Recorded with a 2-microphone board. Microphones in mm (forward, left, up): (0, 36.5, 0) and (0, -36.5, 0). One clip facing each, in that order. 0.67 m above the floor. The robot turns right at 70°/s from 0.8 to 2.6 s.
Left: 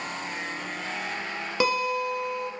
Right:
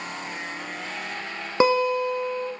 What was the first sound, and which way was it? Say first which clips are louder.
A guitar: right 6 dB; 125° right.